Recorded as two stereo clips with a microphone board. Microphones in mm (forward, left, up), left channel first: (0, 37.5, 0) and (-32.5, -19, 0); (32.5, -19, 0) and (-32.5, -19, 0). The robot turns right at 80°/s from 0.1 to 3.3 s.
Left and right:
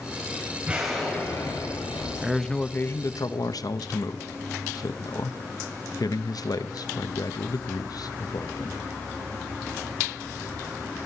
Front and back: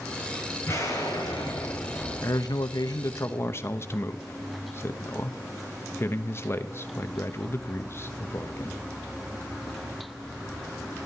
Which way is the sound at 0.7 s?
50° right.